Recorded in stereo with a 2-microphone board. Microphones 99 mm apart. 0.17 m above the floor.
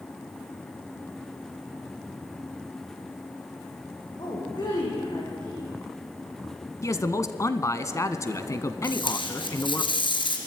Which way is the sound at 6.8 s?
35° left (ahead or behind).